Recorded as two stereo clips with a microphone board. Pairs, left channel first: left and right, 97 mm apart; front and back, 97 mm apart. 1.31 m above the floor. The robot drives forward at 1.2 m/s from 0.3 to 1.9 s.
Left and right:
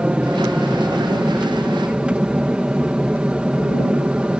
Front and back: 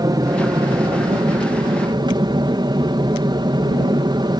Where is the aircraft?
165° right.